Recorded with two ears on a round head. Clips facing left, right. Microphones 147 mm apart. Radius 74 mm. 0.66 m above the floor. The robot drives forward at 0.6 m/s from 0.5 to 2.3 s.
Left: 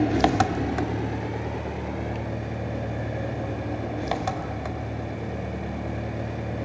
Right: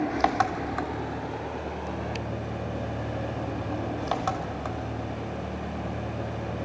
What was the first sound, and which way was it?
An engine running, 35° left (ahead or behind).